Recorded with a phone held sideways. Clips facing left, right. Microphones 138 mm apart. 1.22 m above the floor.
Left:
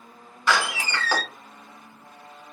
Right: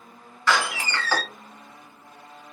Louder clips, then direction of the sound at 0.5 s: Even; 15° left (ahead or behind).